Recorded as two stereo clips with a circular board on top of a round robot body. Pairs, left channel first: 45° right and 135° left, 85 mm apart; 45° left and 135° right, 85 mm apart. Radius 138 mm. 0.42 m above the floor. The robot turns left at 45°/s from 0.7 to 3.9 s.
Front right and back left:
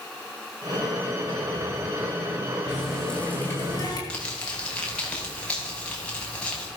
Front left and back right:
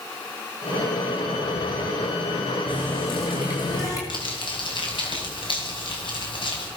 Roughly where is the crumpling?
Ahead left.